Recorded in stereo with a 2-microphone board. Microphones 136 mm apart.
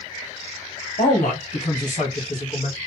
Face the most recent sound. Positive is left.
turn(degrees=65)  # may be behind; listen again after turning